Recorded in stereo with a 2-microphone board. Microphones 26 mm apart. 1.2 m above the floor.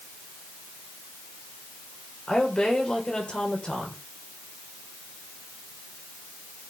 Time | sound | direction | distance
2.3 | a woman speaking | 40° left (ahead or behind) | 5 m